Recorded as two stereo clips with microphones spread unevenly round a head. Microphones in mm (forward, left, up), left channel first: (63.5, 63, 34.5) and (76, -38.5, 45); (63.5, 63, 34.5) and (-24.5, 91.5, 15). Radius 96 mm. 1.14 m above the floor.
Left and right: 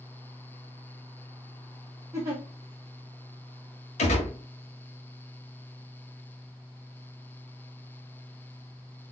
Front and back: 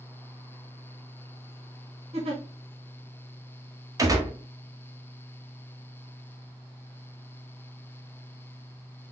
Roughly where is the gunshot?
Left.